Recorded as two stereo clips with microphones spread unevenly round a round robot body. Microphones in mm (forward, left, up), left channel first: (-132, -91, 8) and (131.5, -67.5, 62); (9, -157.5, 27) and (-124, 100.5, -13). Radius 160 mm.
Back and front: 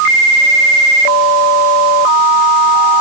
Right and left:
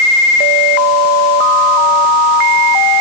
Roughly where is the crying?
No crying in this recording.